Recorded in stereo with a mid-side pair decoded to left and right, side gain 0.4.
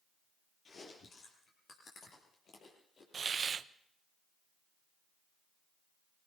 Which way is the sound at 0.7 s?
55° left.